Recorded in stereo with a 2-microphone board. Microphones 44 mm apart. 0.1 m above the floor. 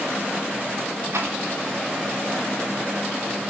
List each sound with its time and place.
1.1 s a rattle: 70° right (ahead or behind), 4 m